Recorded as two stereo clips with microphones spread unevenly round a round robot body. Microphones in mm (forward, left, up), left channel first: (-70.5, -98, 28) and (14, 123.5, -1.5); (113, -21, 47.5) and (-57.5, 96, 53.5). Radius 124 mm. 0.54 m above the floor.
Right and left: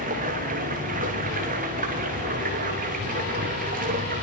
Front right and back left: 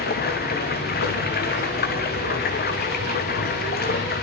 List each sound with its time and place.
0.0 s running water: 10° left, 7 m